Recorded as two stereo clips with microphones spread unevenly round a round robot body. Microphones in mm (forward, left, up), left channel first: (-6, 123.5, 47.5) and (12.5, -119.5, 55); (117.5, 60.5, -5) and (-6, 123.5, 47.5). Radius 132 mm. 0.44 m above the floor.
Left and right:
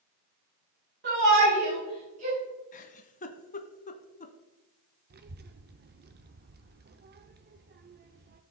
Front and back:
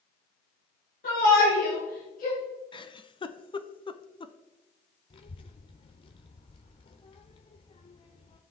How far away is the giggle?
About 0.8 m.